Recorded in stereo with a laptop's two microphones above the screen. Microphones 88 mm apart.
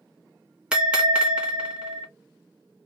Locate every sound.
0.7 s a bell: 10° right (ahead or behind), 1.0 m